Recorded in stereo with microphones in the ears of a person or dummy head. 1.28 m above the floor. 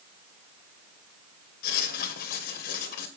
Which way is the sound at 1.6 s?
55° left (ahead or behind).